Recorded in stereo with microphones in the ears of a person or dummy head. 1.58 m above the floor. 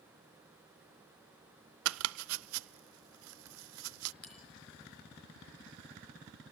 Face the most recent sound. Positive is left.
turn(degrees=5)  # may be behind; listen again after turning